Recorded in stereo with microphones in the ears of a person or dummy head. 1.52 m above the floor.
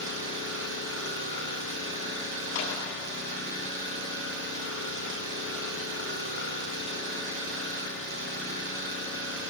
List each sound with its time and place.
0.0 s an engine running: 65° right (ahead or behind), 5 m
2.5 s a clap: 85° left, 9.5 m